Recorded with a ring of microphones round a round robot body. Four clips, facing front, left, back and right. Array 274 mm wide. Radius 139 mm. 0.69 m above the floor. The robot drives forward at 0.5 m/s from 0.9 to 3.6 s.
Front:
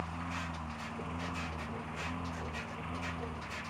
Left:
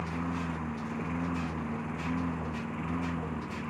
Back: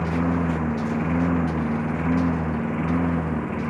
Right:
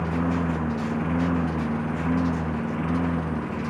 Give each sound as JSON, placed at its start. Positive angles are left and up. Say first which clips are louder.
{"t": 0.0, "sound": "a lawn mower", "louder": "right 9 dB, back 17 dB", "azimuth_deg": -150}